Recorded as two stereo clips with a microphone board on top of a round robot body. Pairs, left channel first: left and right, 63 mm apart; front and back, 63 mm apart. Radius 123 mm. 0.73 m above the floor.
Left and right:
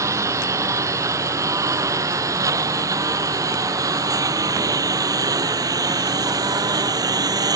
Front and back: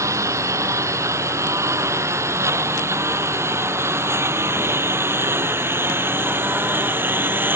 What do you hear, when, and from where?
0.0 s a lawn mower: 135° right; by 7.6 s 120° right